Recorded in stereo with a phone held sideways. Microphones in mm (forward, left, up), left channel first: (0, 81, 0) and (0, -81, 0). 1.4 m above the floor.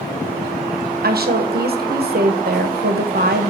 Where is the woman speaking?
75° right (ahead or behind), 0.9 m.